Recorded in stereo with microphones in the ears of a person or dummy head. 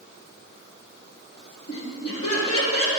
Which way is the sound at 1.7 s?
35° left (ahead or behind).